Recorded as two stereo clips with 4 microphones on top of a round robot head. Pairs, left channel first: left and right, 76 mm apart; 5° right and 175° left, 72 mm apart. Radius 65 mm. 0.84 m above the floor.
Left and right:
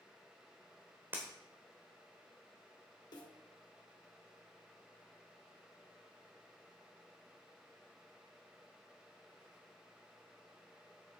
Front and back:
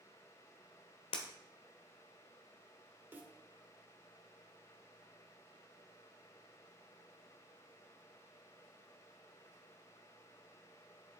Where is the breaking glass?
15° right, 1.2 m.